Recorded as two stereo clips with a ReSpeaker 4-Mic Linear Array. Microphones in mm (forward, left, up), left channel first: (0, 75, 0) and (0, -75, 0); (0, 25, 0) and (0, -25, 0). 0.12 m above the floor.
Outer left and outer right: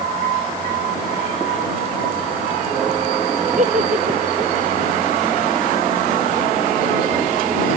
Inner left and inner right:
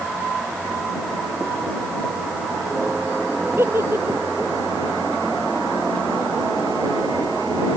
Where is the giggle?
55° right (ahead or behind).